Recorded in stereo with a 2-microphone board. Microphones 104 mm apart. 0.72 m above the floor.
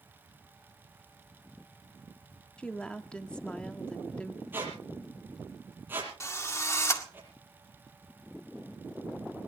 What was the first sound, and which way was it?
A woman speaking, 10° left (ahead or behind).